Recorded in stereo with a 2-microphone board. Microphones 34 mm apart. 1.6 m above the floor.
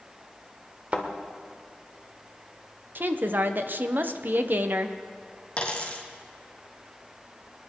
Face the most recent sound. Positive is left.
turn(degrees=35)  # may be behind; listen again after turning